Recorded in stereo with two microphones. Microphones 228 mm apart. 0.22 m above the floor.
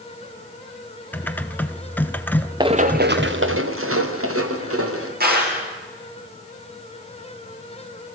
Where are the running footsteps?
20° right (ahead or behind), 1.1 m; by 5.1 s 85° right, 4 m.